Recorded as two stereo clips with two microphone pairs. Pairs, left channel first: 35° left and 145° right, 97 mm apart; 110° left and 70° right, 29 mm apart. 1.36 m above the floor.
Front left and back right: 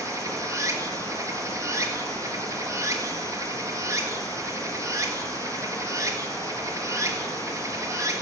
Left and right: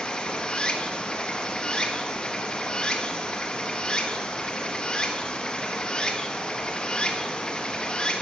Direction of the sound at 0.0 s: 160° left.